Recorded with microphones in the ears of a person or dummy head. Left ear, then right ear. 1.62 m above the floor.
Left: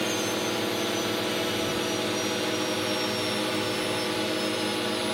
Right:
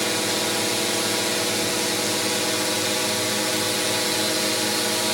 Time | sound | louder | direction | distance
0.0 | a drone | right 4 dB | 65° right (ahead or behind) | ?